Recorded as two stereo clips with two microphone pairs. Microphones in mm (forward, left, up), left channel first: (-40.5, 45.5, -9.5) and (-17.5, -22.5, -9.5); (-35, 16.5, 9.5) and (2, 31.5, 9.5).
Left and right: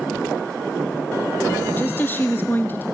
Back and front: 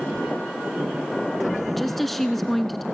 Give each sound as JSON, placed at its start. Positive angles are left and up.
{"t": 1.7, "sound": "a woman speaking", "azimuth_deg": 120, "distance_m": 1.2}